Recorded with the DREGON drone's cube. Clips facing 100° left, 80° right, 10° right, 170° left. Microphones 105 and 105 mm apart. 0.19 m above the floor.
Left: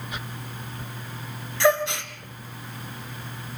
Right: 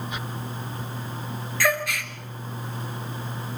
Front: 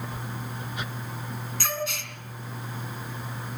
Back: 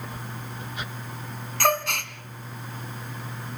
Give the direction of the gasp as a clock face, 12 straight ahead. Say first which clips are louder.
Left 5 dB, back 9 dB; 7 o'clock.